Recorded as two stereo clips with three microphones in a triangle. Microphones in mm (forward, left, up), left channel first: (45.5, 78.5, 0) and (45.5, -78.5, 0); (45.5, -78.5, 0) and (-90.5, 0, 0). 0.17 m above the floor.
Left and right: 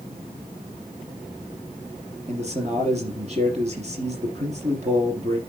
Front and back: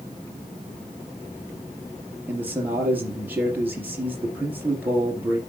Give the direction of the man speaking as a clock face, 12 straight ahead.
4 o'clock.